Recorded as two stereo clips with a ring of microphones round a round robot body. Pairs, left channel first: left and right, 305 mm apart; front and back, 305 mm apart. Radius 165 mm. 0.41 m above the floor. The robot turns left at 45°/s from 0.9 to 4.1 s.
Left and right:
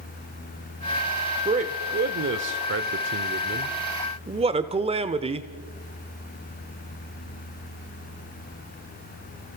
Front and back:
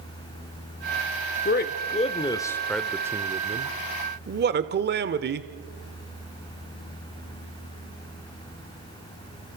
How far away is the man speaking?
About 1.0 m.